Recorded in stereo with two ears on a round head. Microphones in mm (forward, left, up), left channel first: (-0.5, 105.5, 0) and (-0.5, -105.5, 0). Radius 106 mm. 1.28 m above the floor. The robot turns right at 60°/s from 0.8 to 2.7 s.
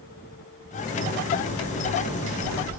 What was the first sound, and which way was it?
A crack, 70° right (ahead or behind).